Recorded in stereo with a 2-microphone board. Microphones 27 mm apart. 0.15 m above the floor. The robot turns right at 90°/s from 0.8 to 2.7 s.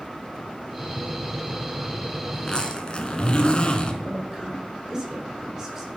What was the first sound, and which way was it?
A zipper, 35° left.